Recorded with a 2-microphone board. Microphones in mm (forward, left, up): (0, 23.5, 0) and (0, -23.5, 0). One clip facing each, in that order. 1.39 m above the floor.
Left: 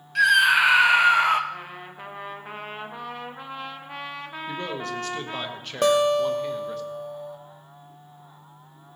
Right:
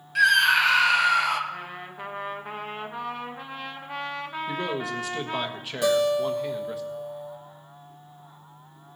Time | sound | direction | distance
0.1 | a scream | centre (ahead or behind) | 0.9 m
1.5 | a trumpet | centre (ahead or behind) | 1.1 m
4.5 | a man speaking | 5° right (ahead or behind) | 1.1 m
5.8 | a guitar | 55° left (ahead or behind) | 0.8 m